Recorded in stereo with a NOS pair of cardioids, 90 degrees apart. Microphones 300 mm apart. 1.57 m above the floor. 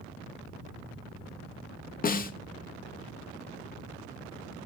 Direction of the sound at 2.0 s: 30° left.